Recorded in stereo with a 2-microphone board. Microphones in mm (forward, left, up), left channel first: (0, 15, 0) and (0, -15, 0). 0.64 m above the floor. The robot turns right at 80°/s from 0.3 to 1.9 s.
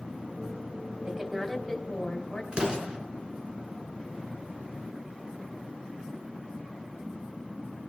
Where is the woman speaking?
40° right, 3.5 m; by 2.4 s 30° left, 3.5 m.